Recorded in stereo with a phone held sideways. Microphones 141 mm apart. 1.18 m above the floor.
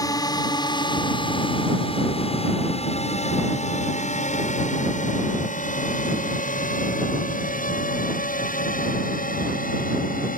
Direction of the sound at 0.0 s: 30° left (ahead or behind).